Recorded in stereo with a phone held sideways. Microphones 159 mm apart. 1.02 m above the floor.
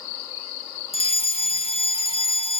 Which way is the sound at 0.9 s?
40° left (ahead or behind).